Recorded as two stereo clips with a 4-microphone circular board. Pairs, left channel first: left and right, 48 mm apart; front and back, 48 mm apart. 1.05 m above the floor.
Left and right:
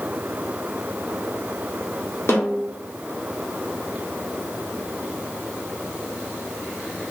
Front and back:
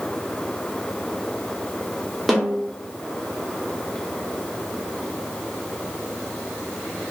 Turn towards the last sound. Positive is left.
turn(degrees=90)